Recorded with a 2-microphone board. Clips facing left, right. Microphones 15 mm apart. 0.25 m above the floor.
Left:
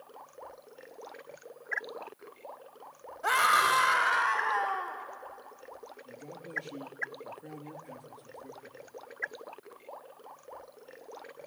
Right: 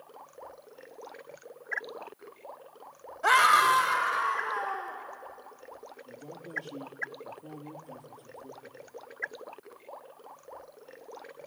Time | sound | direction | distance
3.2 | a scream | 25° right (ahead or behind) | 1.0 m
6.0 | a man speaking | 60° left (ahead or behind) | 3 m